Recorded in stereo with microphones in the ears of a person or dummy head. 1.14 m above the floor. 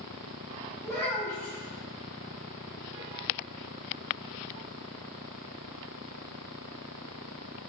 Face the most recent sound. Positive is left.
turn(degrees=5)  # may be behind; listen again after turning